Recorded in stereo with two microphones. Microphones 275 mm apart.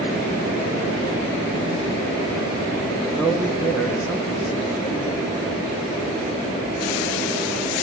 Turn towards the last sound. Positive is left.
turn(degrees=0)  # may be behind; listen again after turning